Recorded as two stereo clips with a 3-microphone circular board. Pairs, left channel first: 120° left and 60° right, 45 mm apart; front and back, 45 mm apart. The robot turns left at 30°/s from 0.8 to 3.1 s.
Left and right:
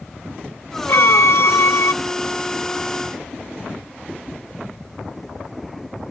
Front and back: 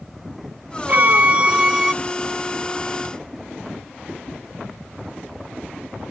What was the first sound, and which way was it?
A violin, 140° left.